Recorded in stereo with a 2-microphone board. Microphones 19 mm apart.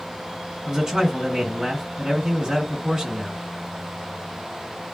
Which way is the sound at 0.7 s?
30° right (ahead or behind).